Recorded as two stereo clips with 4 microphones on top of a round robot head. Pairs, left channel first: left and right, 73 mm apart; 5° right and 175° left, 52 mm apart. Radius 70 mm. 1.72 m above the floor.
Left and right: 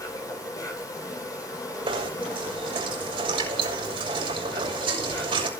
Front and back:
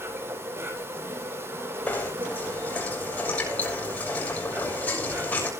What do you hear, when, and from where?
0.0 s an insect: 135° left, 10 m
1.9 s knocking: 65° right, 6 m